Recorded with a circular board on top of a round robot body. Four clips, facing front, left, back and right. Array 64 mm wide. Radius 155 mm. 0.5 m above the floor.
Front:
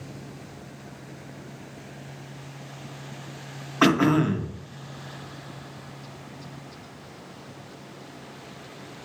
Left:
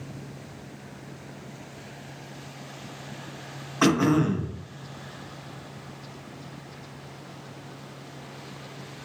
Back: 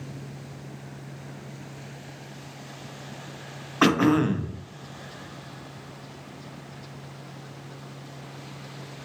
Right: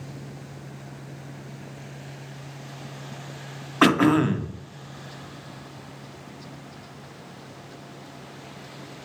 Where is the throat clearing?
90° right, 0.7 m.